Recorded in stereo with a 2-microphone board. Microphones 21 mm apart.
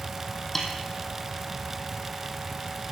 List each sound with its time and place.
0.6 s a snare drum: 10° left (ahead or behind), 3 m